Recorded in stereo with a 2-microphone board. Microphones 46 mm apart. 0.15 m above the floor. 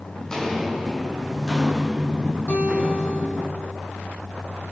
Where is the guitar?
40° left (ahead or behind), 4 m.